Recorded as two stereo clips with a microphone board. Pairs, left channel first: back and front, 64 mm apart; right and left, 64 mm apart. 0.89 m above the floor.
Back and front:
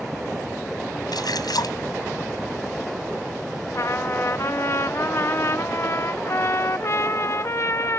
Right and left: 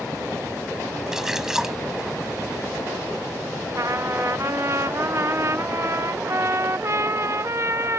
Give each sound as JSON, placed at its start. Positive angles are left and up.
{"t": 1.1, "sound": "a splash", "azimuth_deg": 170}
{"t": 3.7, "sound": "a trumpet", "azimuth_deg": 135}